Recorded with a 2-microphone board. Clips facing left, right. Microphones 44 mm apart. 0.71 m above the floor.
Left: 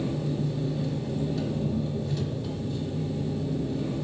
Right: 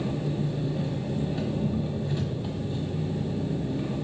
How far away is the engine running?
About 1.4 m.